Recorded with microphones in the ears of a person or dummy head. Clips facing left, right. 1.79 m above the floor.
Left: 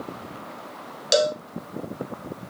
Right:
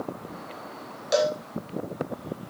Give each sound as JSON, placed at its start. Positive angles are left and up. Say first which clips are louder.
{"t": 1.1, "sound": "a cowbell", "louder": "left 2 dB", "side_deg": 40, "distance_m": 1.0}